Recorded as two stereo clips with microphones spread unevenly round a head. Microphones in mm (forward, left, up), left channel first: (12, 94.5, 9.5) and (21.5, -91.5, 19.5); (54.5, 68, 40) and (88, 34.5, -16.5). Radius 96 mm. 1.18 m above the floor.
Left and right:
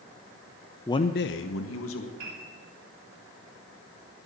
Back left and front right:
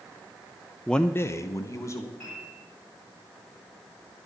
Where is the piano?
135° right, 4 m.